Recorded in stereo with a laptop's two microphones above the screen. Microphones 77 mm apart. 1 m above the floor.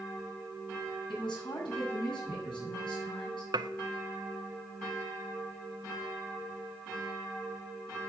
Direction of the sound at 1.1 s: 80° left.